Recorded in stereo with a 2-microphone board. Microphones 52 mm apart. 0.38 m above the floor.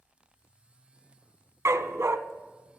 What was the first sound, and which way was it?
A dog barking, 60° right (ahead or behind).